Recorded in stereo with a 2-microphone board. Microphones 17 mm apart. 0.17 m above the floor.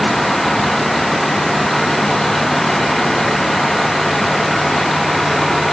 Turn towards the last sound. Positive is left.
No sound to turn to.